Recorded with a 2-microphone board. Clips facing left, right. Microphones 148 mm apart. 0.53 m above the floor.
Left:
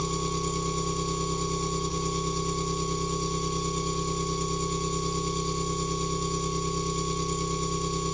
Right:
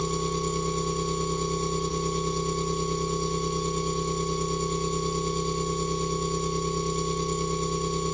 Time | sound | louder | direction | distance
0.0 | an engine running | right 2 dB | 55° right (ahead or behind) | 1.0 m